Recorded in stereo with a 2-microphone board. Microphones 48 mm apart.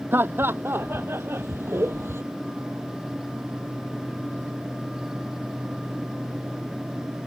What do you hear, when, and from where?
0.1 s laughter: 50° right (ahead or behind); by 2.2 s 65° right (ahead or behind)